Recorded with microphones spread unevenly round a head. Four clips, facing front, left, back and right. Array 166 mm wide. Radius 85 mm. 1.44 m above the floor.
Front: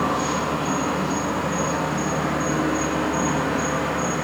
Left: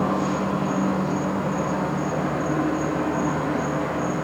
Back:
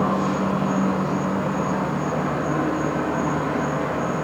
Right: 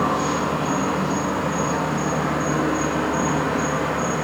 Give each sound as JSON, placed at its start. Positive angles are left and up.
{"t": 0.0, "sound": "an insect", "azimuth_deg": -115, "distance_m": 7.5}